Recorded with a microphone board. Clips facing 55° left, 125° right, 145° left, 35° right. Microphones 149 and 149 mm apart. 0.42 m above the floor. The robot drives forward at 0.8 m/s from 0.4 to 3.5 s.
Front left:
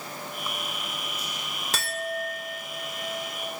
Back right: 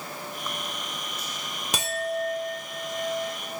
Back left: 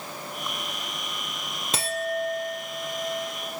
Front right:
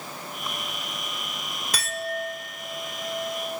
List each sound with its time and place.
1.7 s a clink: straight behind, 0.5 m